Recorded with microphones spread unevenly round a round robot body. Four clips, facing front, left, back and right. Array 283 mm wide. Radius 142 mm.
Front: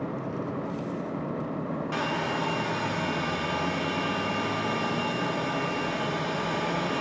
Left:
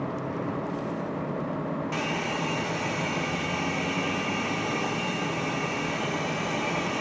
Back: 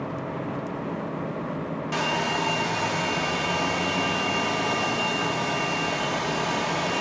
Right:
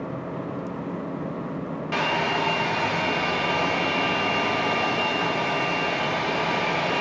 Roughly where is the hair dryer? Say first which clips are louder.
Right 5 dB, back 4 dB; right.